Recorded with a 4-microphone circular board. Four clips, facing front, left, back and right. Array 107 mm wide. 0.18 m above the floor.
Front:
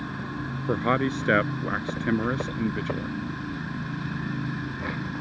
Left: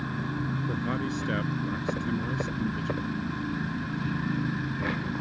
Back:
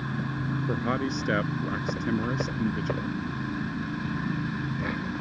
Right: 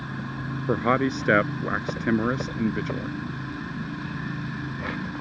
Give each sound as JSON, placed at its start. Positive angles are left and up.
{"t": 0.7, "sound": "a man speaking", "azimuth_deg": -65}